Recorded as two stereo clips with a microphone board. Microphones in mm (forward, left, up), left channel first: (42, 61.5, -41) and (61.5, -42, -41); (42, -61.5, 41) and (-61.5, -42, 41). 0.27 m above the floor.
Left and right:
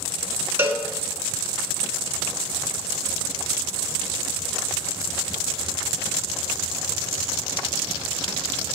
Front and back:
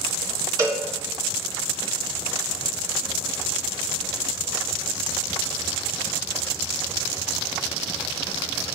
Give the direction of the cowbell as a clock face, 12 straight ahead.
5 o'clock.